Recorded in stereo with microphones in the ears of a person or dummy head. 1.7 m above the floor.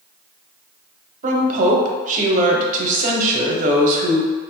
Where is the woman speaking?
50° right (ahead or behind), 0.8 m.